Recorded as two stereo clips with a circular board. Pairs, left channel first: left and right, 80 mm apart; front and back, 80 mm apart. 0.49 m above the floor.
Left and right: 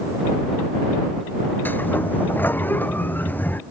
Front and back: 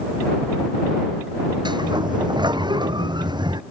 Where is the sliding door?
160° left.